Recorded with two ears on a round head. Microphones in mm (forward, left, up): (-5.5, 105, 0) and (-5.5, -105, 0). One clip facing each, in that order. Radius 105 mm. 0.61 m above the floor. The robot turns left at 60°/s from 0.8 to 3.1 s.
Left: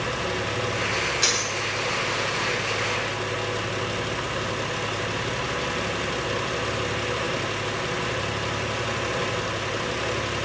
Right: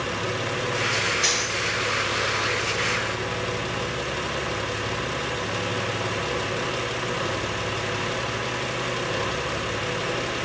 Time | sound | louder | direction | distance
1.2 | a dropped coin | even | 50° left (ahead or behind) | 1.3 m